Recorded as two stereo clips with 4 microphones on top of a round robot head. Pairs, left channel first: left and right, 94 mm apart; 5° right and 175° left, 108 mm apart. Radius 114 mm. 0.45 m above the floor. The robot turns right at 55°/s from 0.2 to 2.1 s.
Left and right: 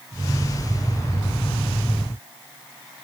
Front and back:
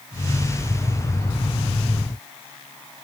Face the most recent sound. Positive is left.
No sound to turn to.